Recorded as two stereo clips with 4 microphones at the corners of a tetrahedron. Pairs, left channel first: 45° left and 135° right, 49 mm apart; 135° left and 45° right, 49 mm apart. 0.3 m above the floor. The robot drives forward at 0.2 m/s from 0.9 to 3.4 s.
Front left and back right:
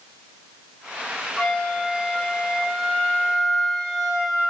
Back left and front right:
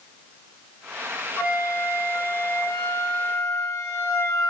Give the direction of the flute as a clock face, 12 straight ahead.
8 o'clock.